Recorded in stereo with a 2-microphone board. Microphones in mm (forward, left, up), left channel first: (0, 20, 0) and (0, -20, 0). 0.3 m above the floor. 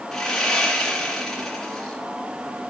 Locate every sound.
0.1 s sawing: 5° left (ahead or behind), 2.5 m